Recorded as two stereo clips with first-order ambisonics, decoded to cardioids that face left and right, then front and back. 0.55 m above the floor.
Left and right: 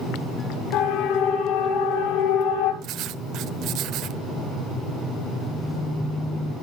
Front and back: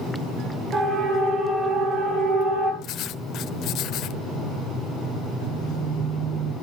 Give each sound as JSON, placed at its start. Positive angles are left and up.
{"t": 0.7, "sound": "a siren", "azimuth_deg": 115, "distance_m": 6.0}
{"t": 2.8, "sound": "writing", "azimuth_deg": -50, "distance_m": 0.8}
{"t": 5.4, "sound": "a phone buzzing", "azimuth_deg": 170, "distance_m": 2.0}